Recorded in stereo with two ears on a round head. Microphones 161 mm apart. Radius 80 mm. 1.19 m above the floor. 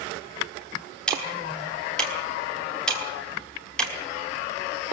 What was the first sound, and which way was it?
Ticking, 5° left (ahead or behind).